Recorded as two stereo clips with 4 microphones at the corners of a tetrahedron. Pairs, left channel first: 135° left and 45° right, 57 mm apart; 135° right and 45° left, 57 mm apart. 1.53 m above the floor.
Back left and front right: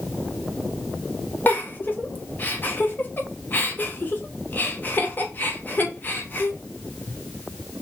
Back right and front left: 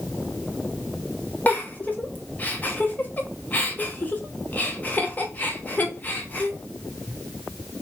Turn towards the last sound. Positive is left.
turn(degrees=180)